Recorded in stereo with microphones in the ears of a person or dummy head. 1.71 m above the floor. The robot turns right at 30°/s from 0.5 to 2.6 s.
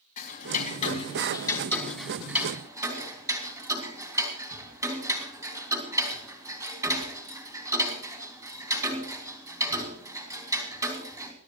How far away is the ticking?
About 2 m.